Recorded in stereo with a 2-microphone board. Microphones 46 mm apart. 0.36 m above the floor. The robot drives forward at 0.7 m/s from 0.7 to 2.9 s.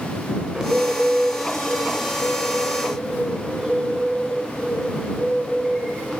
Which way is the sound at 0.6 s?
20° right (ahead or behind).